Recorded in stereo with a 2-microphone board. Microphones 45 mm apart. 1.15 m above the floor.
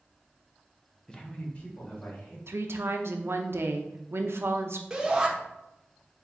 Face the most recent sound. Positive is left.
turn(degrees=-10)  # may be behind; listen again after turning